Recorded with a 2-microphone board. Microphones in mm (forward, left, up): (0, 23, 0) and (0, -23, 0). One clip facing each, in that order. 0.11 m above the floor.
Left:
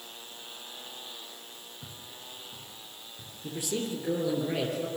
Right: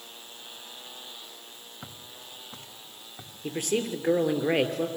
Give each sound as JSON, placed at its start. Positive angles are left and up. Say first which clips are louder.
{"t": 1.8, "sound": "footsteps", "louder": "right 3 dB", "side_deg": -70, "distance_m": 2.0}
{"t": 3.4, "sound": "a man speaking", "louder": "right 5 dB", "side_deg": -50, "distance_m": 2.5}